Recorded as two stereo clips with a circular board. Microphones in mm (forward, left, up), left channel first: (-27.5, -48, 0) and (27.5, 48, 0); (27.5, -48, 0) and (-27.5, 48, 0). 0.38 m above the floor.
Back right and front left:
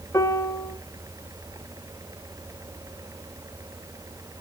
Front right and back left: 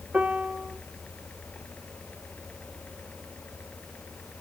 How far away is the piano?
About 1.4 m.